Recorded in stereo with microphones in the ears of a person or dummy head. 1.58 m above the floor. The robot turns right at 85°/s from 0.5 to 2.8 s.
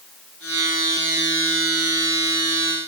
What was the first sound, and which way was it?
Only background noise.